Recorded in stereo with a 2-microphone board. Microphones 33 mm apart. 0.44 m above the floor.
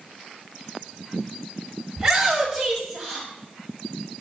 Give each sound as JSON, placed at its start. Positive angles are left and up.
{"t": 2.0, "sound": "a shout", "side_deg": -10, "distance_m": 1.7}